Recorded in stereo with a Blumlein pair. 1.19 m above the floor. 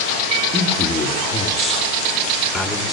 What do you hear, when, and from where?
0.5 s a man speaking: 20° left, 3.5 m; by 2.9 s 15° left, 5 m